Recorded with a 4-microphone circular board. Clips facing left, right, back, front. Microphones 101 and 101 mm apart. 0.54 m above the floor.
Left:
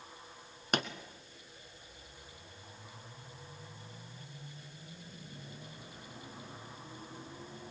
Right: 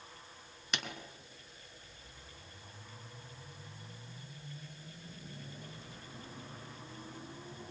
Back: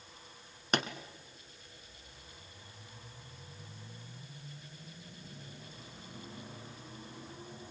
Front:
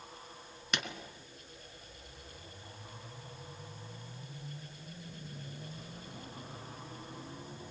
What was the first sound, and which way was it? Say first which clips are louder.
A pop: left 7 dB, back 6 dB; 130° left.